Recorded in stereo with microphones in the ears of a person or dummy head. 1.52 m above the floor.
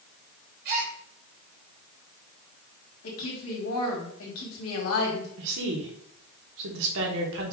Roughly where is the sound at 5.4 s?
Right.